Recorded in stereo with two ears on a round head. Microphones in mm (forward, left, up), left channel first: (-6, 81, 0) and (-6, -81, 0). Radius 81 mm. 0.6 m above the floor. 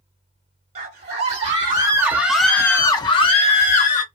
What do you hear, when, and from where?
0.8 s a scream: 40° right (ahead or behind), 1.3 m; by 4.0 s 45° left (ahead or behind), 1.3 m